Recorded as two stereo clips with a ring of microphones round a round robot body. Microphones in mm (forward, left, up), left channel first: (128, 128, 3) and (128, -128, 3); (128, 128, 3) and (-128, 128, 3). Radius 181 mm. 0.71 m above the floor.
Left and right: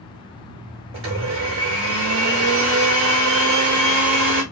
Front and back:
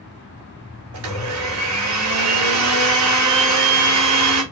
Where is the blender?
145° right, 2.5 m.